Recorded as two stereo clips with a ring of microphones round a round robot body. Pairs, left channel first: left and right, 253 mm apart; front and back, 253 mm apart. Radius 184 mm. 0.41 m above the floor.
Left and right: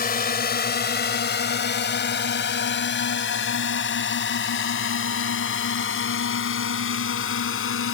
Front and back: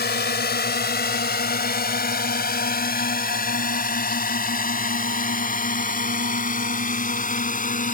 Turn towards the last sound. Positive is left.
turn(degrees=55)